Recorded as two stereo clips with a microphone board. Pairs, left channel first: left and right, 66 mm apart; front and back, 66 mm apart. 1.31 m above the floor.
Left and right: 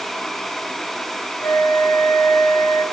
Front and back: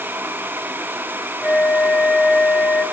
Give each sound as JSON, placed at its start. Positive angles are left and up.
{"t": 1.4, "sound": "a flute", "azimuth_deg": 70, "distance_m": 3.5}